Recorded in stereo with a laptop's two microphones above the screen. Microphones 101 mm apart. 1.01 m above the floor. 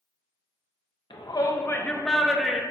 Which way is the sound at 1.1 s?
55° left (ahead or behind).